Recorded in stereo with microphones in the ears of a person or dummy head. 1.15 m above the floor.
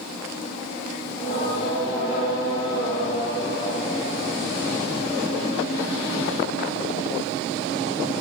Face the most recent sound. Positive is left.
turn(degrees=25)  # may be behind; listen again after turning